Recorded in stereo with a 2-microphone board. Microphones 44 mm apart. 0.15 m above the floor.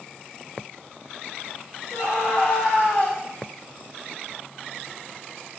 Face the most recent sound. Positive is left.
turn(degrees=40)  # may be behind; listen again after turning